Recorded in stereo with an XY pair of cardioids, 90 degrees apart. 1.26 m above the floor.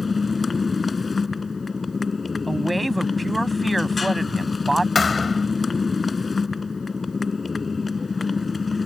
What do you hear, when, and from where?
0.0 s a motorcycle: 35° left
2.5 s a woman speaking: 10° right
5.0 s a thud: 35° left